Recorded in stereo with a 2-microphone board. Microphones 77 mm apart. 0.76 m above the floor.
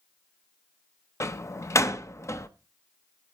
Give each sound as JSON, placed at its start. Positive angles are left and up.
{"t": 1.2, "sound": "a door slam", "side_deg": 40, "distance_m": 0.7}